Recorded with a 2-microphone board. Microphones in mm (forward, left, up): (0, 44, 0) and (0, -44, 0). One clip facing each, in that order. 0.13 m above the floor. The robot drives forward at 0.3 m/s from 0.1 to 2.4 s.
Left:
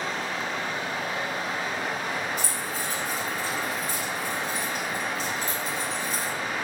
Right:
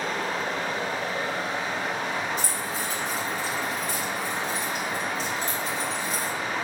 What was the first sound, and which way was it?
Running water, 50° right (ahead or behind).